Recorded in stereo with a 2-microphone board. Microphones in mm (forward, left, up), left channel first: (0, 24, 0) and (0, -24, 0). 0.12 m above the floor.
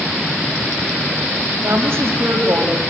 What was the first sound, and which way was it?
A woman speaking, 45° right (ahead or behind).